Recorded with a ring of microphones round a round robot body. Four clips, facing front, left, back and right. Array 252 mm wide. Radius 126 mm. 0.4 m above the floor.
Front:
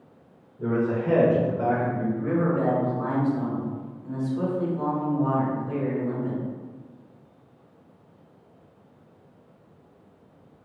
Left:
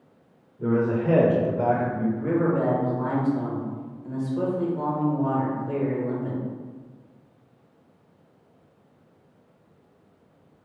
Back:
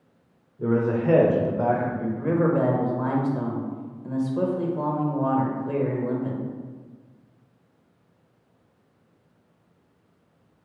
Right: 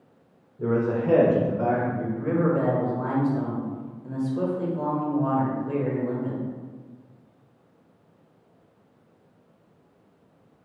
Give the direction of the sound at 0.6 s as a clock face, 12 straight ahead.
4 o'clock.